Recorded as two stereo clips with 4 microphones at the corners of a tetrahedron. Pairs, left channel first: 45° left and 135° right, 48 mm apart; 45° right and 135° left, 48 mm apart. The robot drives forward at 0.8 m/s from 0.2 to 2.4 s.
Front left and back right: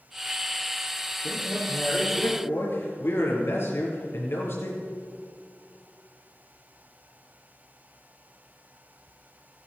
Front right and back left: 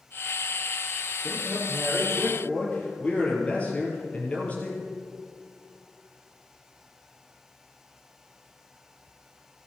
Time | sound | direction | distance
1.2 | a man speaking | 15° left | 5.5 m